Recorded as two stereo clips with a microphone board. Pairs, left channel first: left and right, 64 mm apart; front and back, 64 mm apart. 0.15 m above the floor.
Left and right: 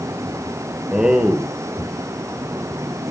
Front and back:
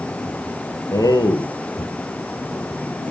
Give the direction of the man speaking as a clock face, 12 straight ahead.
12 o'clock.